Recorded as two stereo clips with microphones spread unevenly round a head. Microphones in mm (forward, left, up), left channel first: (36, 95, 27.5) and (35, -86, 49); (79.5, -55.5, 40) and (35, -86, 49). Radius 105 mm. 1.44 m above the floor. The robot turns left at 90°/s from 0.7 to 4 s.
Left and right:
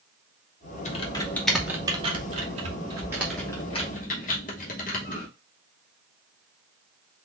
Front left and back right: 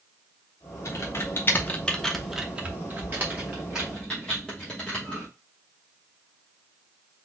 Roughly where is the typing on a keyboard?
Ahead left.